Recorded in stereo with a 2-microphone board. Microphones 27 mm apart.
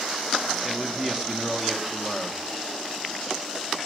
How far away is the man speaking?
About 1.1 m.